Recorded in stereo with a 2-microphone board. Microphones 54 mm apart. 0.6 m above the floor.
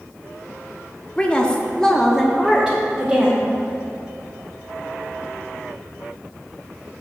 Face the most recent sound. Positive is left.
turn(degrees=-10)  # may be behind; listen again after turning